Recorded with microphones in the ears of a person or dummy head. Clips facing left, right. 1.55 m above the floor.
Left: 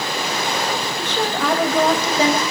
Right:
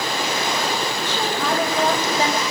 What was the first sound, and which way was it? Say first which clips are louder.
A woman speaking: left 2 dB; 50° left (ahead or behind).